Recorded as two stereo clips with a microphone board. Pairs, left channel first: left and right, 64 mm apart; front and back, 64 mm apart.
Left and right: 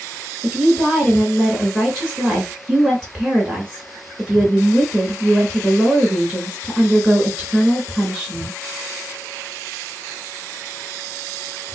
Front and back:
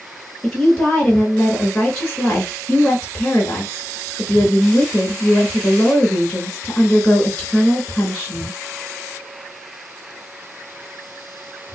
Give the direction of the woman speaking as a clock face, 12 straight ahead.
2 o'clock.